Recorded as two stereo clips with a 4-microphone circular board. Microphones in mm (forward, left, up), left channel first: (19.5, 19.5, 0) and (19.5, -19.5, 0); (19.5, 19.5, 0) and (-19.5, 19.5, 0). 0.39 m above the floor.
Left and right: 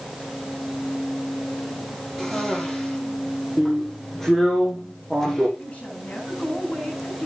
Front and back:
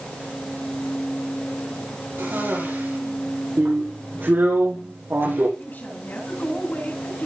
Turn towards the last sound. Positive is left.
turn(degrees=35)